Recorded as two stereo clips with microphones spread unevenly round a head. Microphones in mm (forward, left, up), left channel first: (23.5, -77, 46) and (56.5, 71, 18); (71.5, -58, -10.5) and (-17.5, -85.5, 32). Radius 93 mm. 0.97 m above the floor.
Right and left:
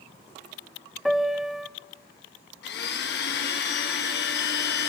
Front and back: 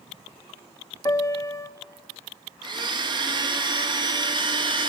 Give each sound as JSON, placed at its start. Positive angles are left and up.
{"t": 1.1, "sound": "a piano", "azimuth_deg": -5, "distance_m": 0.8}
{"t": 2.6, "sound": "a blender", "azimuth_deg": -115, "distance_m": 1.5}